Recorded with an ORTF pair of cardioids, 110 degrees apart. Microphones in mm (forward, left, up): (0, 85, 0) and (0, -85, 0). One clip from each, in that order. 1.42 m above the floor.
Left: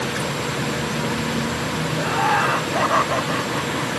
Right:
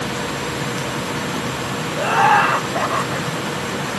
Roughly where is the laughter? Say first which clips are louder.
Right 6 dB; ahead right.